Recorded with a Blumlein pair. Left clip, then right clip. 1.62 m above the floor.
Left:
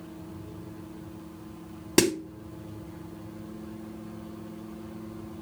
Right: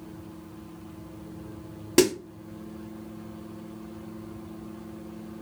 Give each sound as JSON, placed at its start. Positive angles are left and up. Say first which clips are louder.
{"t": 2.0, "sound": "a snare drum", "louder": "right 2 dB", "azimuth_deg": 0, "distance_m": 1.5}